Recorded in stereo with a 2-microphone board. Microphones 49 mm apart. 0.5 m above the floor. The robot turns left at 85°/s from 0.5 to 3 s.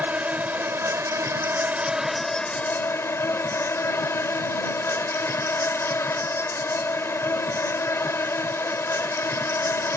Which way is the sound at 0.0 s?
40° right.